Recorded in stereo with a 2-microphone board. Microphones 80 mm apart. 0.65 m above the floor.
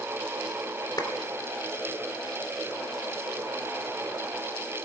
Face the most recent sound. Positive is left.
turn(degrees=65)  # may be behind; listen again after turning